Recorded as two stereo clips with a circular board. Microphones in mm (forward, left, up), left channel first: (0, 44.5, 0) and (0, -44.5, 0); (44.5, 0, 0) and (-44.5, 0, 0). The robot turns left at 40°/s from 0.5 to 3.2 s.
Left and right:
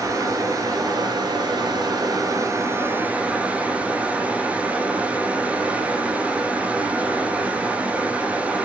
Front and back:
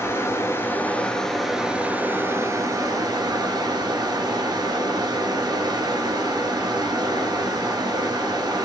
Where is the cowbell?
I don't hear a cowbell.